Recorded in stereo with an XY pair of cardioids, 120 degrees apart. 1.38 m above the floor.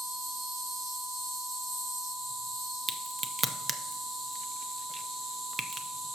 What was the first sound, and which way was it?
An insect, 45° right.